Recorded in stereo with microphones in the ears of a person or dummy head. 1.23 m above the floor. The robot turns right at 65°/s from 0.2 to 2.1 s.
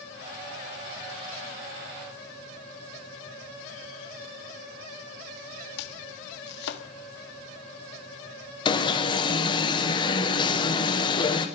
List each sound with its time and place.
5.8 s chopping: 65° left (ahead or behind), 1.6 m
8.7 s an alarm: 20° left (ahead or behind), 1.2 m